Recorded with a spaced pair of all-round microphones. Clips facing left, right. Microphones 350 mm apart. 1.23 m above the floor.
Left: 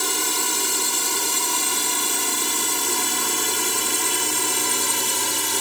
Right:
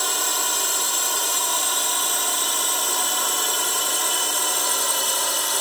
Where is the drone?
35° left (ahead or behind).